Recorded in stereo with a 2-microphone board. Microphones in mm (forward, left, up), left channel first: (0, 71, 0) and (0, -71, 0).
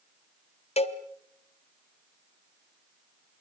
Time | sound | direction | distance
0.8 | a cowbell | 45° left (ahead or behind) | 1.3 m